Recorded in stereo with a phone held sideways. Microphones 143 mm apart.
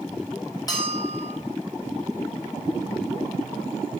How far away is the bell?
About 4.5 m.